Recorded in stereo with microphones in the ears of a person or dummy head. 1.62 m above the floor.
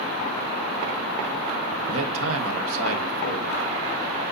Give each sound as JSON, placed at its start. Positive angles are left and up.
{"t": 1.9, "sound": "a man speaking", "side_deg": -80, "distance_m": 1.4}